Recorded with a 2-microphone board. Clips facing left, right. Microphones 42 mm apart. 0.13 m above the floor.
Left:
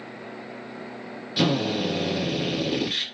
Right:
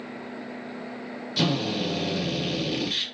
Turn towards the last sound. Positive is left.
turn(degrees=15)  # may be behind; listen again after turning